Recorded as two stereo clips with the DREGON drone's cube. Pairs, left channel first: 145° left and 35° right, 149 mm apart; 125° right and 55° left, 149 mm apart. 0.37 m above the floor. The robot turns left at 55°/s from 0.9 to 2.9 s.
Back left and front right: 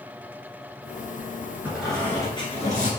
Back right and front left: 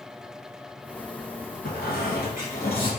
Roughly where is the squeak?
Behind right.